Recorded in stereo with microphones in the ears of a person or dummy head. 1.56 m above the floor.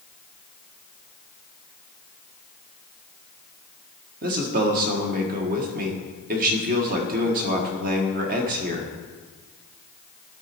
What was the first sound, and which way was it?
A man speaking, 45° right (ahead or behind).